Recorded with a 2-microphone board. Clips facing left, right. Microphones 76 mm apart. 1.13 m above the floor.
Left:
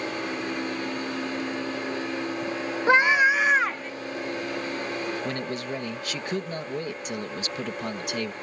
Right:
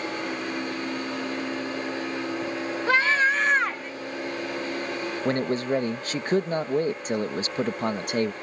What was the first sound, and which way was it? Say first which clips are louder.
A scream: left 3 dB; 20° left (ahead or behind).